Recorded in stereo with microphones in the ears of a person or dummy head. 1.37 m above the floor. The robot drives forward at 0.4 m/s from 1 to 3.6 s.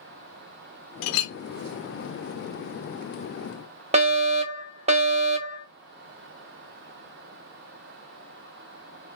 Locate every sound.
1.0 s a clink: 65° left (ahead or behind), 0.6 m; by 1.3 s 60° left (ahead or behind), 0.6 m
3.9 s a fire alarm: 30° right (ahead or behind), 0.8 m